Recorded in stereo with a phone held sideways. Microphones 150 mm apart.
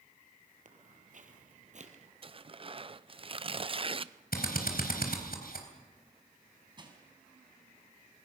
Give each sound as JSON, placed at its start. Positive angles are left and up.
{"t": 0.7, "sound": "footsteps", "side_deg": -60, "distance_m": 2.5}
{"t": 2.2, "sound": "tearing paper", "side_deg": -35, "distance_m": 0.6}
{"t": 4.3, "sound": "a drill", "side_deg": 80, "distance_m": 3.5}
{"t": 6.8, "sound": "crushing", "side_deg": -30, "distance_m": 4.0}